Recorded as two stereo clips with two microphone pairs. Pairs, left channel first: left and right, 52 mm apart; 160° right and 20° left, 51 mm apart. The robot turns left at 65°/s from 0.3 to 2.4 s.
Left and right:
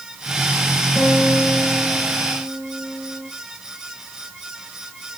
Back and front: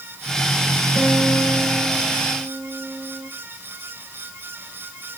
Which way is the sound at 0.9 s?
170° left.